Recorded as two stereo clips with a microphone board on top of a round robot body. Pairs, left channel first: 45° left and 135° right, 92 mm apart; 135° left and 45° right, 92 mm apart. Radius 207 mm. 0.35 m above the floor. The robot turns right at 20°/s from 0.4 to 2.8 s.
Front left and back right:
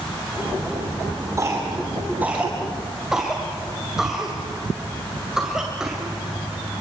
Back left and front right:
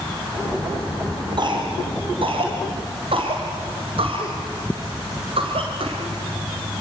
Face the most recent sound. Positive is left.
turn(degrees=-50)